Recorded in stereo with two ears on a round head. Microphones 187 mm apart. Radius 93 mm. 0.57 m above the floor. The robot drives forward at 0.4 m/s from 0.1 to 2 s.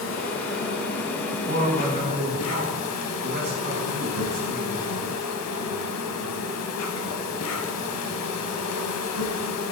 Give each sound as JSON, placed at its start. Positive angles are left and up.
{"t": 0.0, "sound": "an insect", "side_deg": 65, "distance_m": 1.7}
{"t": 1.5, "sound": "a man speaking", "side_deg": -55, "distance_m": 4.5}